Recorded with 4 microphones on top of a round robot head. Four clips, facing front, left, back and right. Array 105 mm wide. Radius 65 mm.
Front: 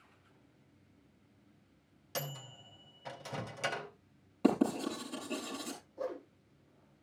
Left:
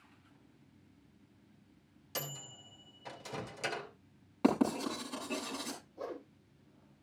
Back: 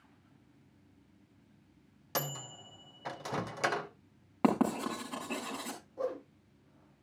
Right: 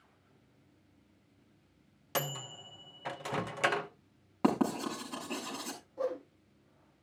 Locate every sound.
2.1 s a microwave: 130° right, 0.9 m
4.4 s writing: 160° right, 6 m
6.0 s a whoosh: 145° right, 5.5 m